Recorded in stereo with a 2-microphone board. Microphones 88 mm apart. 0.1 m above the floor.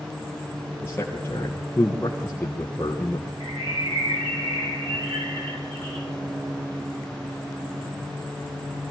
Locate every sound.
0.8 s a man speaking: 25° left (ahead or behind), 2.5 m
3.4 s a bird: 60° right (ahead or behind), 7.5 m